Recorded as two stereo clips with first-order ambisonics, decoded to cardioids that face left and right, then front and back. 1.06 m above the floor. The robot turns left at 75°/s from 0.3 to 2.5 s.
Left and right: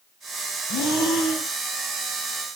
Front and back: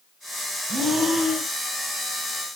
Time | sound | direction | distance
0.7 | breathing | 125° left | 1.1 m